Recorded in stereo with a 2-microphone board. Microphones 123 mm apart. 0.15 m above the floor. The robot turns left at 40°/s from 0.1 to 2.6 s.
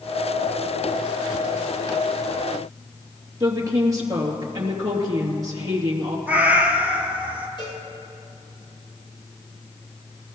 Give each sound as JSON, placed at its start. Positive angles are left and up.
{"t": 3.4, "sound": "a woman speaking", "side_deg": -30, "distance_m": 3.0}
{"t": 6.3, "sound": "a cat meowing", "side_deg": -15, "distance_m": 1.4}
{"t": 7.6, "sound": "a cowbell", "side_deg": 45, "distance_m": 4.5}